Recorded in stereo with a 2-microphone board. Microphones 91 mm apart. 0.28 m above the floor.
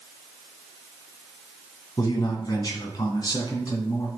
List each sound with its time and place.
2.0 s a man speaking: 45° left (ahead or behind), 2 m; by 4.1 s 50° left (ahead or behind), 3.5 m